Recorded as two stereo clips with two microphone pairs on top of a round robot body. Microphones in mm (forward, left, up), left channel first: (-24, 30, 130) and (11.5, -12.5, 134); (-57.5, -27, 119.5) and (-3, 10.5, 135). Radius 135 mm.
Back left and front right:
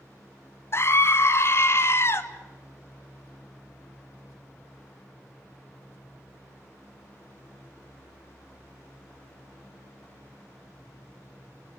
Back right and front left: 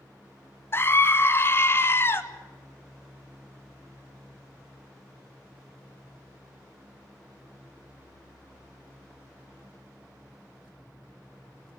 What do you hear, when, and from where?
0.7 s a scream: 165° left, 2 m